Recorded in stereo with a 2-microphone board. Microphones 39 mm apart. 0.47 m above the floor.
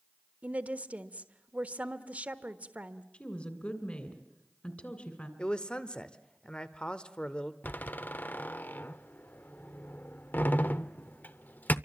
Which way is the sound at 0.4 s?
40° right (ahead or behind).